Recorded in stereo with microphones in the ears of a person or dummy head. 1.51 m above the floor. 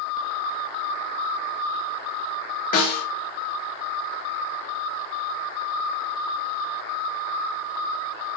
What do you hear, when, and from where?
2.7 s a snare drum: 50° left (ahead or behind), 1.0 m